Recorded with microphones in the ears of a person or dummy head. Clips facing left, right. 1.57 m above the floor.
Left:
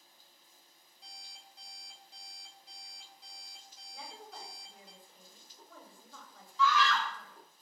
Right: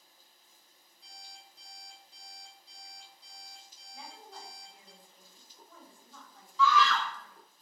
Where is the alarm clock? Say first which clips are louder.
Right 2 dB; 60° left (ahead or behind), 3.5 m.